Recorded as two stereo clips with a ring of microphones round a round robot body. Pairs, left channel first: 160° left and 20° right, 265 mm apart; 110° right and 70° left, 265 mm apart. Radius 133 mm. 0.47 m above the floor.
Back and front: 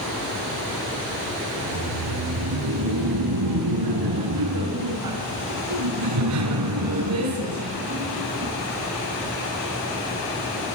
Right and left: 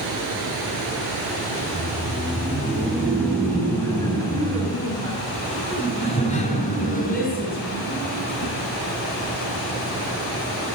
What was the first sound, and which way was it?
Laughter, 20° right.